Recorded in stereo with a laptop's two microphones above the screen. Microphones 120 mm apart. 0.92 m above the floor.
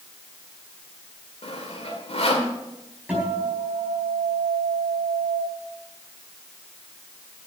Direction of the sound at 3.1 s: 10° right (ahead or behind).